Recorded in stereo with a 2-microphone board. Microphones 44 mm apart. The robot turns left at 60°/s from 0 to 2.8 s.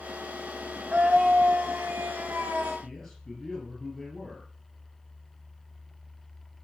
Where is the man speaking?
10° left (ahead or behind), 5.5 m.